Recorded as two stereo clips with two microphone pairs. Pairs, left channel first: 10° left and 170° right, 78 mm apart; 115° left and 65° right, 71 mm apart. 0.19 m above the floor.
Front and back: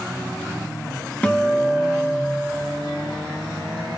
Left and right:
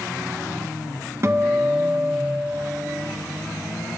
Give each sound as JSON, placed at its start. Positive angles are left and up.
{"t": 1.2, "sound": "a guitar", "azimuth_deg": -55, "distance_m": 1.0}